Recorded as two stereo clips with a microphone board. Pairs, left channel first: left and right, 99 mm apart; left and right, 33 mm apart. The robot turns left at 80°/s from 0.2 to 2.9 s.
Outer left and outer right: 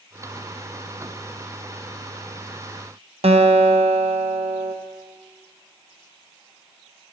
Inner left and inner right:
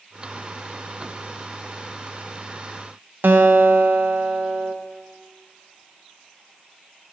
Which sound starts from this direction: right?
A guitar, at 3.2 s.